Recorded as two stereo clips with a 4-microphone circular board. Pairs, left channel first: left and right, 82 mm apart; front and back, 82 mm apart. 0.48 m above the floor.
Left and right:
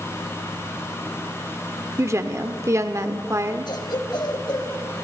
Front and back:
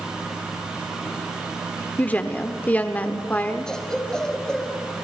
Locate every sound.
2.0 s a woman speaking: 60° right, 1.1 m
3.7 s a cough: 80° left, 3 m